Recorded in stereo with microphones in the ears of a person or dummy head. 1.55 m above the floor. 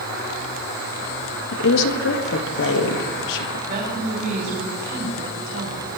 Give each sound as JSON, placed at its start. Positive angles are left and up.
{"t": 1.5, "sound": "a woman speaking", "side_deg": 70, "distance_m": 1.6}
{"t": 3.7, "sound": "a woman speaking", "side_deg": -50, "distance_m": 5.5}